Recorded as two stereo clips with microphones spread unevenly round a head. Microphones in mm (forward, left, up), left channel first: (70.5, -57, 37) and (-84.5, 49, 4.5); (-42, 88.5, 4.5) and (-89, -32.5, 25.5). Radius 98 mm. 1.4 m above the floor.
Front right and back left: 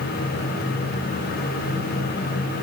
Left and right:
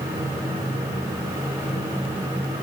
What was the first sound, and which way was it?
Only background noise.